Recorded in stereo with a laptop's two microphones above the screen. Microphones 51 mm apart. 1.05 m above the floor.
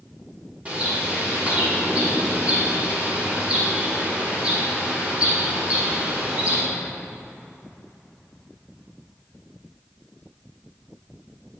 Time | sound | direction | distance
0.7 | a bird | 25° right (ahead or behind) | 1.3 m